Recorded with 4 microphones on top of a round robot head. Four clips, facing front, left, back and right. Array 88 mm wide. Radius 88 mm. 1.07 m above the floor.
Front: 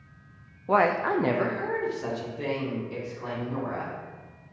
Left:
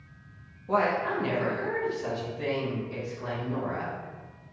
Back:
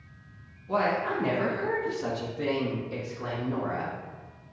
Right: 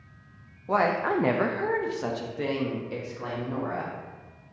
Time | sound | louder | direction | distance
0.7 | a woman speaking | right 2 dB, front 4 dB | 20° right | 0.5 m